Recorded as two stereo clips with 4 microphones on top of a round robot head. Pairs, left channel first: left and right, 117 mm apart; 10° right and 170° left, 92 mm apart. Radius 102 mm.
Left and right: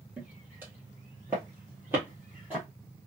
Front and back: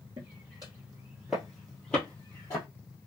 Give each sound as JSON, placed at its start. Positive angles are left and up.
{"t": 0.2, "sound": "footsteps", "azimuth_deg": -155, "distance_m": 1.6}